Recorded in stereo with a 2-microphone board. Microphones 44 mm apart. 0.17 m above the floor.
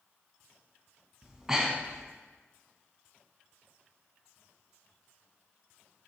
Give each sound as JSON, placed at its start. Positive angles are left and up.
{"t": 1.2, "sound": "breathing", "side_deg": -15, "distance_m": 1.1}